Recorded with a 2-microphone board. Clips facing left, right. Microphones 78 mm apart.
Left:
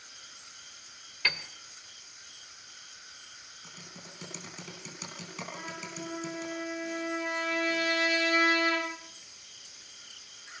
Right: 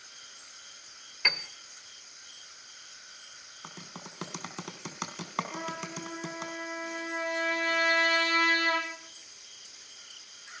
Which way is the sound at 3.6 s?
65° right (ahead or behind).